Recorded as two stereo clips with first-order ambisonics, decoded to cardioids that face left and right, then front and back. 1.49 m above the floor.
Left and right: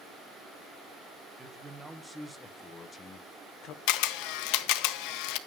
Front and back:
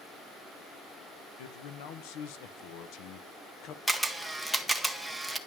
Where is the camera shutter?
90° left, 1.0 m.